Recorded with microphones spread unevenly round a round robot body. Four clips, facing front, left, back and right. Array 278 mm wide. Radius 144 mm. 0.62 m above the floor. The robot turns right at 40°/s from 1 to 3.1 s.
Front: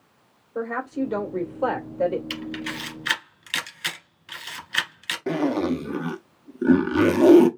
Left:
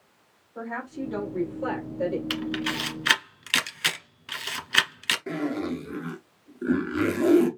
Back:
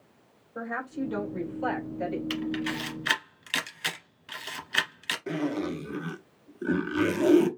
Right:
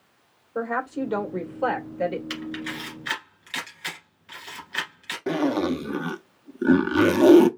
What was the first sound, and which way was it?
A woman speaking, 50° right.